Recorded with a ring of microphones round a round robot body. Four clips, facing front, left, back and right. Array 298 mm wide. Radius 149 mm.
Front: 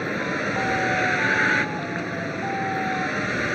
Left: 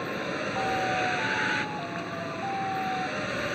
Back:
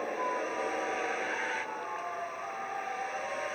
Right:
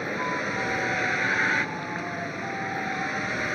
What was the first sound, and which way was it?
A vehicle, 10° right.